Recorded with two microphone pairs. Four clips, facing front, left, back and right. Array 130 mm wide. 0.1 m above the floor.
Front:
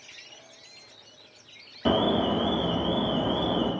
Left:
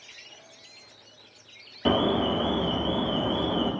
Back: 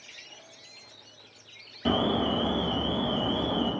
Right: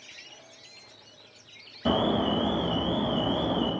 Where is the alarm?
70° left, 1.1 m.